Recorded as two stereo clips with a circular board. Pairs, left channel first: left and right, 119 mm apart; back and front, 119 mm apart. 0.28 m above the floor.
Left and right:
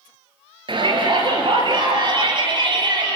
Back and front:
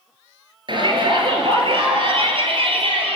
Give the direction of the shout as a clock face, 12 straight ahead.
2 o'clock.